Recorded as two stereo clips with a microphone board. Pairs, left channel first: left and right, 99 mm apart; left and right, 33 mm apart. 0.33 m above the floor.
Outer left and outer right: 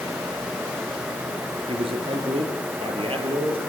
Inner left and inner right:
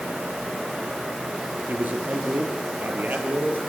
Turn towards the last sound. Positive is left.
turn(degrees=-70)  # may be behind; listen again after turning